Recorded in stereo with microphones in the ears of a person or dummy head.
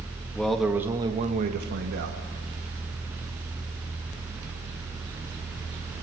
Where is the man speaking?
5° left (ahead or behind), 1.9 m; by 2.2 s 75° right (ahead or behind), 2 m.